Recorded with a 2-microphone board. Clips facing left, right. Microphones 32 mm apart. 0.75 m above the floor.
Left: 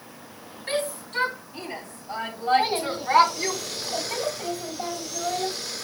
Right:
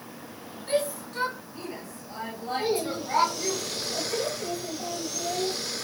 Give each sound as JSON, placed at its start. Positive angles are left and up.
{"t": 0.7, "sound": "a shout", "side_deg": 70, "distance_m": 6.0}
{"t": 2.6, "sound": "a child speaking", "side_deg": 80, "distance_m": 3.5}